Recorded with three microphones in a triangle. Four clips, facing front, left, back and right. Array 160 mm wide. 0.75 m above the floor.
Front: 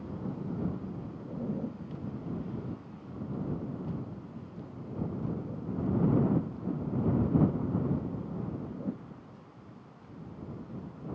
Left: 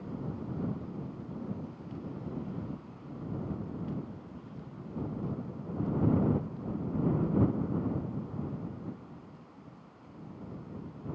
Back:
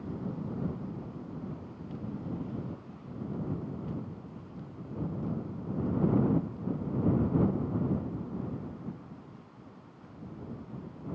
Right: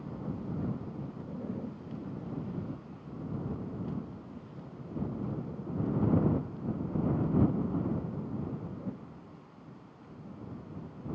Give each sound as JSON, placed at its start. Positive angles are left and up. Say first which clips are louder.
{"t": 1.2, "sound": "a zipper", "louder": "right 1 dB, front 6 dB", "azimuth_deg": -15}